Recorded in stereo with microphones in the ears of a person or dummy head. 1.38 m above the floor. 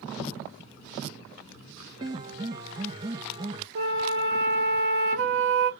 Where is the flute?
70° right (ahead or behind), 1.1 m.